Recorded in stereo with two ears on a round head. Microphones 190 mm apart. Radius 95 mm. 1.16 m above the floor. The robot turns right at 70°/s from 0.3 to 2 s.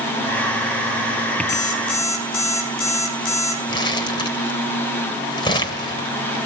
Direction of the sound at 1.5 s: 55° left.